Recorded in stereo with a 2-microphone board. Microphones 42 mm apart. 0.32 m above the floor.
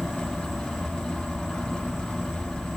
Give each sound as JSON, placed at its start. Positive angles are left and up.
{"t": 0.0, "sound": "an insect", "side_deg": 0, "distance_m": 1.2}